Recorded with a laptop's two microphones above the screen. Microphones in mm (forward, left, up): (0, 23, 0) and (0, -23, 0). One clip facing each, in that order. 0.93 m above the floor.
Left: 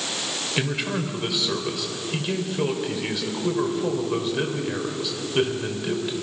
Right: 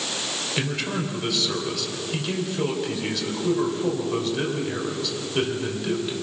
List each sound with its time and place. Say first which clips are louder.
0.6 s a man speaking: left 1 dB; 10° left (ahead or behind), 4 m